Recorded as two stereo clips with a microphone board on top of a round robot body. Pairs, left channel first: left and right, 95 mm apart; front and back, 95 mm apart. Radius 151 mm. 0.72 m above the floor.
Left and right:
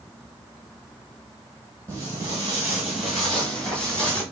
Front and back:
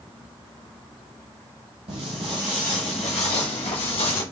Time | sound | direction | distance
1.9 | footsteps | 155° right | 1.1 m